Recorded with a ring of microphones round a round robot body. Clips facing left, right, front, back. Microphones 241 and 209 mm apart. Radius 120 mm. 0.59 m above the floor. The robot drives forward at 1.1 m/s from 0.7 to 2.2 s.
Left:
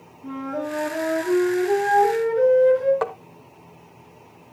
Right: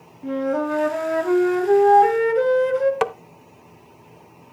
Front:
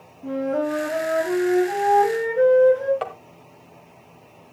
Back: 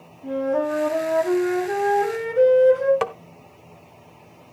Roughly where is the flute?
Ahead right.